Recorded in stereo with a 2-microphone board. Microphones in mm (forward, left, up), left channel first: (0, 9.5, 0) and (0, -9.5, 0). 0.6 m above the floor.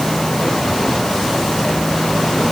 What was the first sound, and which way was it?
Only background noise.